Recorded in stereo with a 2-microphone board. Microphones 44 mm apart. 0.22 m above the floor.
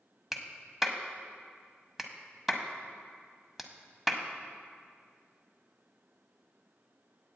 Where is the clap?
5° right (ahead or behind), 0.8 m.